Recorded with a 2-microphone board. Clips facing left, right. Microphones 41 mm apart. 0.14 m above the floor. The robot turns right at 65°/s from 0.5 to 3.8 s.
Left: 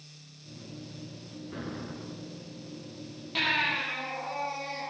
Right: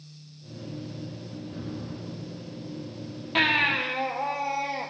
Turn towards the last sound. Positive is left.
turn(degrees=-55)  # may be behind; listen again after turning